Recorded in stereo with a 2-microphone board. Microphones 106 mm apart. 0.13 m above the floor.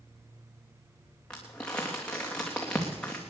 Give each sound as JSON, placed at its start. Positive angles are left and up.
{"t": 1.3, "sound": "crumpling", "side_deg": 10, "distance_m": 3.0}